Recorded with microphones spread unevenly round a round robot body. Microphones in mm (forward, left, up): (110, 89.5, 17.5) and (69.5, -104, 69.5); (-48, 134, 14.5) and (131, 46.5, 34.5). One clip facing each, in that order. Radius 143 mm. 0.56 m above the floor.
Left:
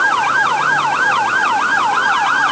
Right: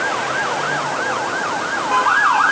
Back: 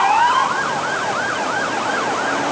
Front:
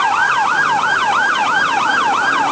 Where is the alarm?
I don't hear an alarm.